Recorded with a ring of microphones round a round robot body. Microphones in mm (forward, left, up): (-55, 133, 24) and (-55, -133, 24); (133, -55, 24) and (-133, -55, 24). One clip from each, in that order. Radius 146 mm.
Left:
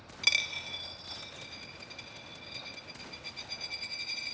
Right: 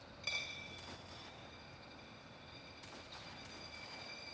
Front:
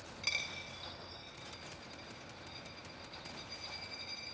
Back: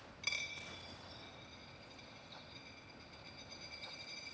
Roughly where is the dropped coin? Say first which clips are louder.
Left 13 dB, front 3 dB; left.